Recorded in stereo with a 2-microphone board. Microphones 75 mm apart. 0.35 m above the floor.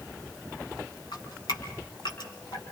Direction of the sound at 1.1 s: 70° left (ahead or behind).